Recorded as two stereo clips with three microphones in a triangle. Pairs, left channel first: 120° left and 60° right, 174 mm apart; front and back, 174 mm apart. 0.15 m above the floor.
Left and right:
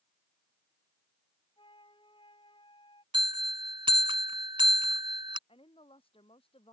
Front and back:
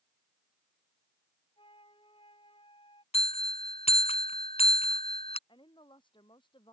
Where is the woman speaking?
60° left.